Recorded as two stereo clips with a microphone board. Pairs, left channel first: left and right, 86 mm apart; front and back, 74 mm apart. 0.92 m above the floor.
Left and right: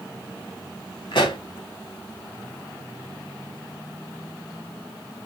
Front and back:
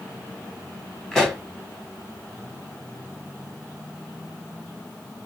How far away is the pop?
About 1.4 m.